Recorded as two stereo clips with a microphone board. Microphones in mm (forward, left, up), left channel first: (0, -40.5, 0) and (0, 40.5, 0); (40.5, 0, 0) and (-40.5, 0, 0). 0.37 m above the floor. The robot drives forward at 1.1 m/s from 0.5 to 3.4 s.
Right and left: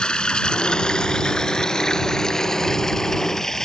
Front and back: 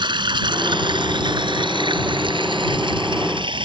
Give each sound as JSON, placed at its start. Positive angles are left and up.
{"t": 0.0, "sound": "running water", "azimuth_deg": -170}